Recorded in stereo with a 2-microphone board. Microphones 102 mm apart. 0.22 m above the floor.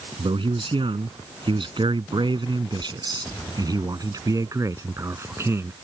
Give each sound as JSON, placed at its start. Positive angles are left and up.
{"t": 0.2, "sound": "a man speaking", "side_deg": -60}